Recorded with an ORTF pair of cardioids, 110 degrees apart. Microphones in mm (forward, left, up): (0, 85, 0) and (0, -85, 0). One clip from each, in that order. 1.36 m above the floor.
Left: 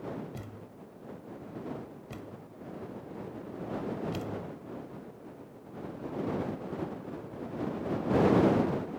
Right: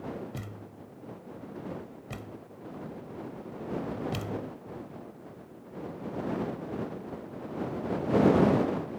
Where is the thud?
30° right.